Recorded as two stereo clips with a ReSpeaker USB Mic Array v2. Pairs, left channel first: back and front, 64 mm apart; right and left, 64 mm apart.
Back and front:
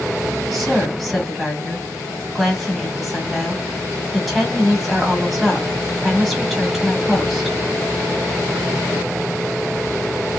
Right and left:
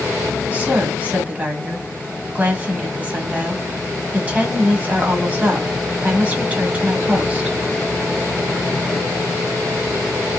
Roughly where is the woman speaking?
Left.